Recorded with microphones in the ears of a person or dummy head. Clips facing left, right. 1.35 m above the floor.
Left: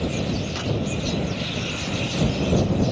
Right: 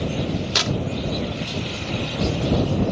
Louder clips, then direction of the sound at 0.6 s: Right 1 dB; 75° right (ahead or behind).